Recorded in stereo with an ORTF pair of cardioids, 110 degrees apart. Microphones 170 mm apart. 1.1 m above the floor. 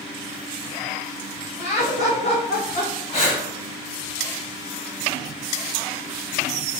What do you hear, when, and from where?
1.6 s laughter: 40° left, 1.8 m; by 3.0 s 55° left, 1.0 m
3.1 s breathing: 35° left, 1.6 m